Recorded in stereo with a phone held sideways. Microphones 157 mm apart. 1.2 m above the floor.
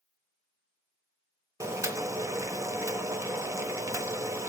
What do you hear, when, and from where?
1.6 s boiling: 20° right (ahead or behind), 0.8 m